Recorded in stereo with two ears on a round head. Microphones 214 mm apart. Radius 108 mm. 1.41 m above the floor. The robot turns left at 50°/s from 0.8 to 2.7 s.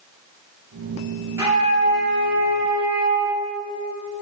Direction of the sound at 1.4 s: 10° right.